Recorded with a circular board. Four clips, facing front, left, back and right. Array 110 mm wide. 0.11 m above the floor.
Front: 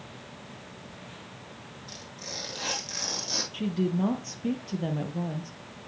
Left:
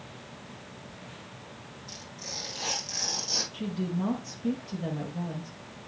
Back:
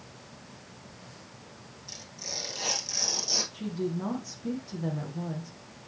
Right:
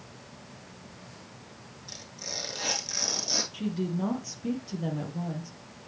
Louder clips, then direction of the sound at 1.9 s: Right 2 dB, even; 65° right.